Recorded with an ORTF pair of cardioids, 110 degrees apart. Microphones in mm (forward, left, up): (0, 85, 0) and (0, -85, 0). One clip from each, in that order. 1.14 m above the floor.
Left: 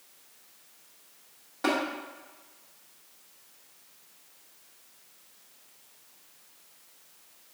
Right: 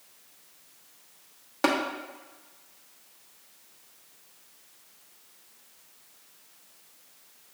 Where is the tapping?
55° right, 1.0 m.